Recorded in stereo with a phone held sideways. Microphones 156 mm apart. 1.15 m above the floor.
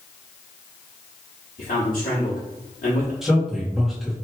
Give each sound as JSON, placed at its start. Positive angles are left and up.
{"t": 1.6, "sound": "a man speaking", "side_deg": 60, "distance_m": 1.2}
{"t": 3.2, "sound": "a man speaking", "side_deg": 0, "distance_m": 1.6}